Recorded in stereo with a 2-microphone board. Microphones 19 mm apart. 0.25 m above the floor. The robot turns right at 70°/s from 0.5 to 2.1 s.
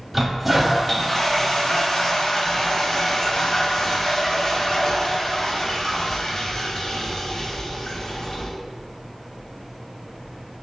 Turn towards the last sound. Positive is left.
turn(degrees=100)